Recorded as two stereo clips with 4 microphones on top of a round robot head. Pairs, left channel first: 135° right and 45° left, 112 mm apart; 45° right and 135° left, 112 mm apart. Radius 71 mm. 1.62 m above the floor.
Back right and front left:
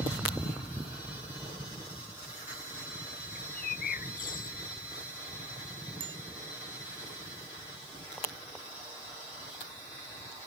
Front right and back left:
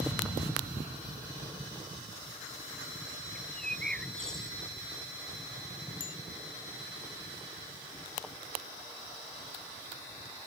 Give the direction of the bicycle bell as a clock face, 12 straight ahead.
12 o'clock.